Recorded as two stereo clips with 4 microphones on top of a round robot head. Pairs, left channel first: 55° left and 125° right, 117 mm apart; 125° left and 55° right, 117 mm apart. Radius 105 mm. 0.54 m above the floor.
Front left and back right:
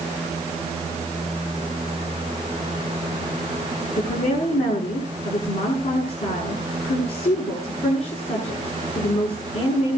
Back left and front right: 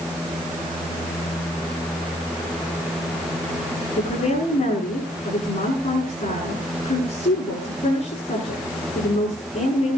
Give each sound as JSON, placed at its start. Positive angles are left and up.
{"t": 4.0, "sound": "a woman speaking", "azimuth_deg": 85, "distance_m": 8.0}